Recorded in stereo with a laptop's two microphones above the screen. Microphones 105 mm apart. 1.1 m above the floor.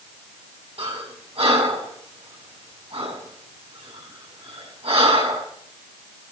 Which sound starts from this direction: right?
Breathing, at 0.8 s.